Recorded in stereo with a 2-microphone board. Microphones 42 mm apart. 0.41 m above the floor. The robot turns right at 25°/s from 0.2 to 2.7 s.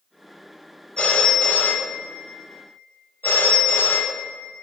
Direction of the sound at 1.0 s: 25° left (ahead or behind).